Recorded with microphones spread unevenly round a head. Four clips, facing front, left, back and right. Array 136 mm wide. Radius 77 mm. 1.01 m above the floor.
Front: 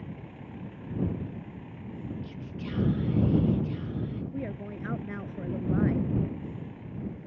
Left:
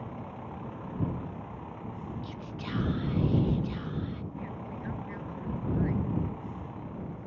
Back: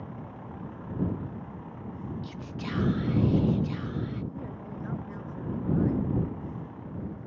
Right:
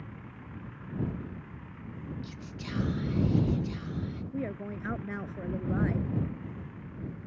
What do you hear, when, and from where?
0.0 s a vehicle: 115° left
2.2 s whispering: 145° left
4.3 s a woman speaking: 50° right